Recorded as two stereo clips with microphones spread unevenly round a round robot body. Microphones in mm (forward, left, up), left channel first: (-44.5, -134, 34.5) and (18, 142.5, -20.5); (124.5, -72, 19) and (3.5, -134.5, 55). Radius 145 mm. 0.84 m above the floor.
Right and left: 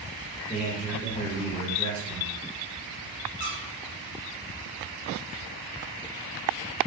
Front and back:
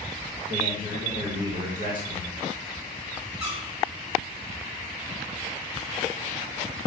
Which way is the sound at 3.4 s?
90° left.